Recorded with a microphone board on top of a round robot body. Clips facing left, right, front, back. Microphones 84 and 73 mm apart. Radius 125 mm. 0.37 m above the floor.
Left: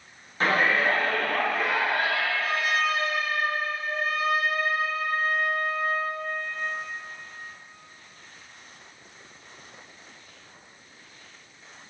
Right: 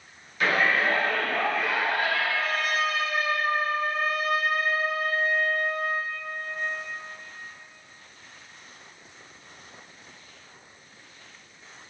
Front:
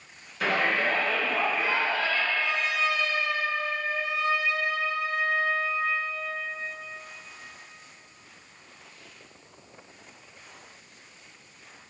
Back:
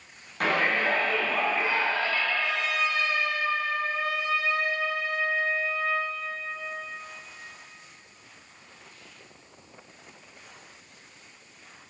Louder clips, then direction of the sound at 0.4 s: Left 1 dB, back 1 dB; 145° left.